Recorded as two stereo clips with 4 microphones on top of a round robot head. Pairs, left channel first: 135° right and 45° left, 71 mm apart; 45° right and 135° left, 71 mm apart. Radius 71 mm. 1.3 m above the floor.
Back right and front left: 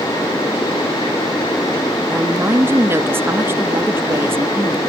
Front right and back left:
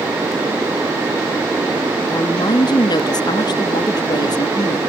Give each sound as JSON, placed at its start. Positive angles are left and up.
{"t": 2.1, "sound": "a woman speaking", "azimuth_deg": -15}